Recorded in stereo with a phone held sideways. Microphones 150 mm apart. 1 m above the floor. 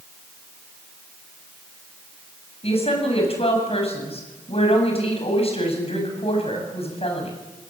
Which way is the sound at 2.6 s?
40° left (ahead or behind).